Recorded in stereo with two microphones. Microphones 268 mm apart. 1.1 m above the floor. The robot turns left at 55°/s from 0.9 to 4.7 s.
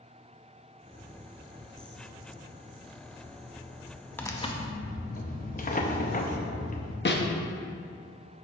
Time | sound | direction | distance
4.2 | tearing paper | 5° left (ahead or behind) | 0.6 m
7.0 | a snare drum | 40° left (ahead or behind) | 0.6 m